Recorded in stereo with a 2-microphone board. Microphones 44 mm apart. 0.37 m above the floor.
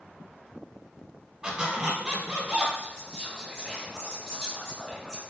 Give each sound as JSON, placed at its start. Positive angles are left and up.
{"t": 1.4, "sound": "a squeak", "side_deg": -15, "distance_m": 0.6}
{"t": 2.8, "sound": "whispering", "side_deg": 15, "distance_m": 1.5}